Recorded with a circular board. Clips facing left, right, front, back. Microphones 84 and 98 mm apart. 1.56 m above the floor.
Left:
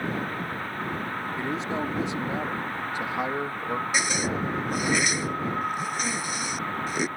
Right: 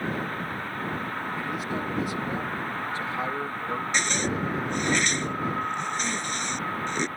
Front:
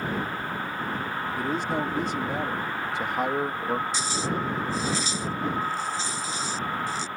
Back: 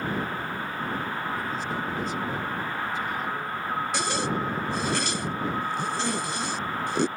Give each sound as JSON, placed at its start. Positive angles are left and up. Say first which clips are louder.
{"t": 1.4, "sound": "a man speaking", "louder": "left 4 dB, front 3 dB", "azimuth_deg": 25}
{"t": 3.9, "sound": "a zipper", "louder": "even, back 1 dB", "azimuth_deg": 170}